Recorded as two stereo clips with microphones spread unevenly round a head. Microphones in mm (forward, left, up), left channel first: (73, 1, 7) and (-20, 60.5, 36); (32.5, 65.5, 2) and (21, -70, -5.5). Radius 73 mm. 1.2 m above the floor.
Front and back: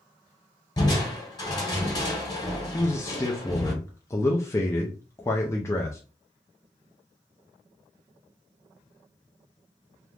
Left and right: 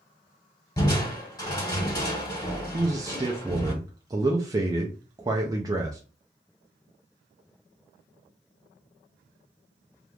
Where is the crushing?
25° left, 2 m.